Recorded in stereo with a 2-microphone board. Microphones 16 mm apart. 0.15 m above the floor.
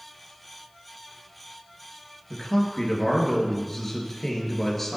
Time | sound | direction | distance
2.3 | a man speaking | 15° left (ahead or behind) | 3 m